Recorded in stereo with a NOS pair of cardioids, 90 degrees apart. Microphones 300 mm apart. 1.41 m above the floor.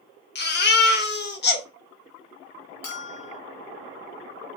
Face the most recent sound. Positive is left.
turn(degrees=60)